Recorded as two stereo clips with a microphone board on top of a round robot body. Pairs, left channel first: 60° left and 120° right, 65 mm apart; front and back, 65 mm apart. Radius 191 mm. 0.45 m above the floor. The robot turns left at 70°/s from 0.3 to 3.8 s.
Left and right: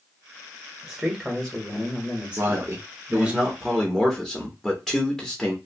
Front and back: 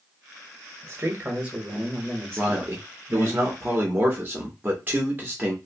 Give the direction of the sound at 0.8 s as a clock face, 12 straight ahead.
6 o'clock.